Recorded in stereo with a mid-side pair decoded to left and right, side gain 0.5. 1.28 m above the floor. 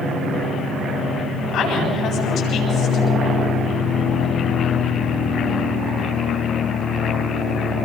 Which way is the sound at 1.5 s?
65° left.